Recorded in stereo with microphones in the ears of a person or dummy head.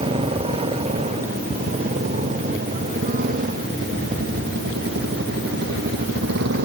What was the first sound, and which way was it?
A motorcycle, 35° right (ahead or behind).